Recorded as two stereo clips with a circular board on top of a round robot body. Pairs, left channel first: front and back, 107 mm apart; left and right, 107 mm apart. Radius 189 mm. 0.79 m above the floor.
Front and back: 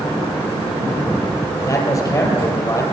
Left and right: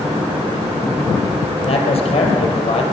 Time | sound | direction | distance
1.6 | a man speaking | 60° left | 3.5 m